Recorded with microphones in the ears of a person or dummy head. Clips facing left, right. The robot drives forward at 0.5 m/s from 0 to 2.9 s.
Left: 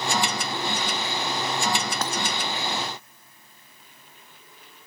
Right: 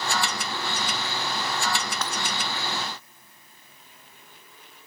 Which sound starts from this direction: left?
Breaking glass, at 2.0 s.